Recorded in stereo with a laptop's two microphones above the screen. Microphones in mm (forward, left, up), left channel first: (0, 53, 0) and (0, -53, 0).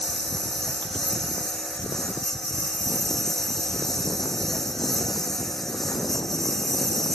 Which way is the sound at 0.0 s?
5° left (ahead or behind).